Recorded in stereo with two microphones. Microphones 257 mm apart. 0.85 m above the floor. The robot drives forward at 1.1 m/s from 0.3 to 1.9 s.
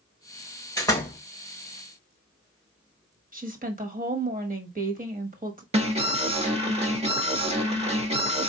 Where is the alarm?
25° right (ahead or behind), 1.2 m.